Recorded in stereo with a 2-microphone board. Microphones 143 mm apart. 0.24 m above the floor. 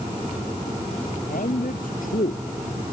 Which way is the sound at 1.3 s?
75° left (ahead or behind).